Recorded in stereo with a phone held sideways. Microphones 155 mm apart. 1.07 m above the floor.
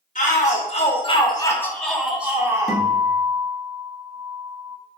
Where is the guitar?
20° right (ahead or behind), 1.1 m.